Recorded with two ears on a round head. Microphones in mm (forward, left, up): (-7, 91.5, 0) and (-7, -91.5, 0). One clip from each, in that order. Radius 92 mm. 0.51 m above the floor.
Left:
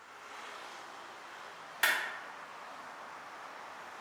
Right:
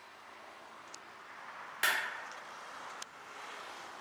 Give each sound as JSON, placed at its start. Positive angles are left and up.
{"t": 1.8, "sound": "a clap", "side_deg": 5, "distance_m": 0.6}